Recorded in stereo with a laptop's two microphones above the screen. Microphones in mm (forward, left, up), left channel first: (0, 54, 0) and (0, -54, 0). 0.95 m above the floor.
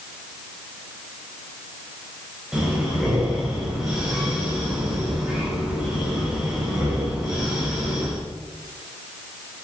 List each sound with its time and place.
2.5 s breathing: 5° right (ahead or behind), 6 m